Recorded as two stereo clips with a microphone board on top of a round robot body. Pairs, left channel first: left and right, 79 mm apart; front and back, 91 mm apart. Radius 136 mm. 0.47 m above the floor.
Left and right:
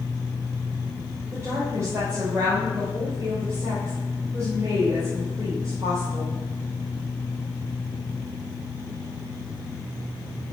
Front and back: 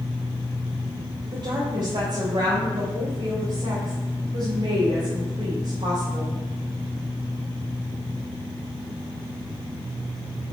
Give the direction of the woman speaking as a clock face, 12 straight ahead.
5 o'clock.